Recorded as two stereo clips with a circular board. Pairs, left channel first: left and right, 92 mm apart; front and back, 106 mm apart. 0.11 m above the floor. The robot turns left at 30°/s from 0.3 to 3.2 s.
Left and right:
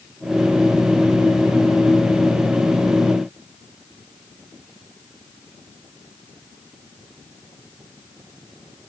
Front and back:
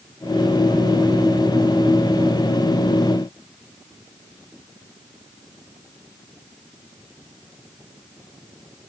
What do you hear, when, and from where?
Only background noise.